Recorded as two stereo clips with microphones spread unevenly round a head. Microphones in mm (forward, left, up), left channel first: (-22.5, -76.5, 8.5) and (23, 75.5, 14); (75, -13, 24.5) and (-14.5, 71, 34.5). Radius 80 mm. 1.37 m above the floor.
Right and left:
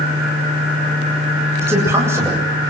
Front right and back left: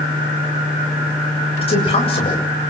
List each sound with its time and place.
1.6 s a man speaking: straight ahead, 8 m